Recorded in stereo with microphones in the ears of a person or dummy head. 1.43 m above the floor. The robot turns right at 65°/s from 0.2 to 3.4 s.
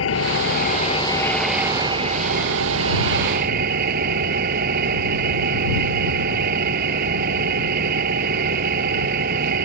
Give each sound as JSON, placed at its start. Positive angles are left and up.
{"t": 0.0, "sound": "an engine running", "azimuth_deg": 95}